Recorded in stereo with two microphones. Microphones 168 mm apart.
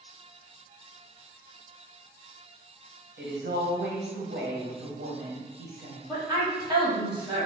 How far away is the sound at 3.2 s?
About 1.3 m.